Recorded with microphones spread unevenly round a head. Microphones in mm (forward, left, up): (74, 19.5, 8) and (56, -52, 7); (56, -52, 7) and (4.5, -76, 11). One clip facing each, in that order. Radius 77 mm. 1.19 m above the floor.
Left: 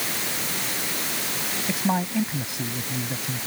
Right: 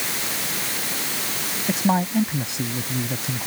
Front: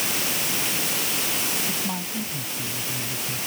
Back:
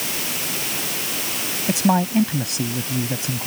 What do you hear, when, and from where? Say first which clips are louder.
1.7 s a man speaking: right 4 dB, back 11 dB; straight behind